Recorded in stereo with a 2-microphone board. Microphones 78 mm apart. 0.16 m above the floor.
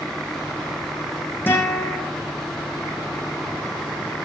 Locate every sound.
1.5 s a guitar: 25° left (ahead or behind), 10 m